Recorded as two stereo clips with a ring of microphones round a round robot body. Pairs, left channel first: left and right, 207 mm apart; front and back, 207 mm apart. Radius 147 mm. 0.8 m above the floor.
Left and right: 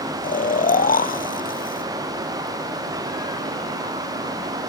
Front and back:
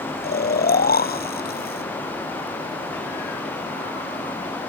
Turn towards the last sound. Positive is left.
turn(degrees=40)